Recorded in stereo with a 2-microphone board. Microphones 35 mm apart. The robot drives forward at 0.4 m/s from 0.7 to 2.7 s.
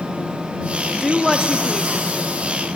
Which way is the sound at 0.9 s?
Centre (ahead or behind).